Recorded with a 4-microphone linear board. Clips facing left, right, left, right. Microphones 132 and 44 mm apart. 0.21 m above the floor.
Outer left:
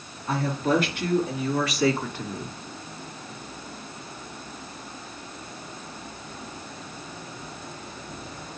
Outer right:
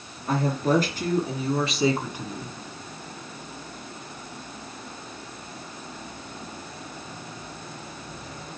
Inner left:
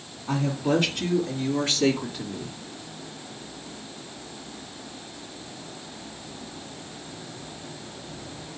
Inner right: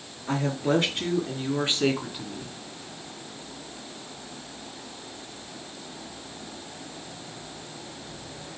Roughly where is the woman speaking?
Right.